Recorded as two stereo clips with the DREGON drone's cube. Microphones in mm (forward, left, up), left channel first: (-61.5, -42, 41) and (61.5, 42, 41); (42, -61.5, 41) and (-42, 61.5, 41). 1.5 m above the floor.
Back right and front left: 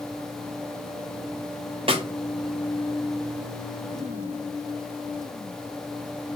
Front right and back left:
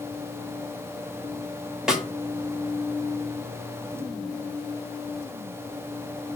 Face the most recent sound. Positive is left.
turn(degrees=40)